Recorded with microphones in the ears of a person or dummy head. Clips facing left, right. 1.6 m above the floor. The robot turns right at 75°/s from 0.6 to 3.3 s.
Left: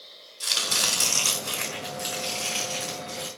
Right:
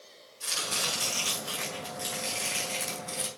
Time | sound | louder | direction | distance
0.4 | chopping | left 3 dB | 65° left | 4 m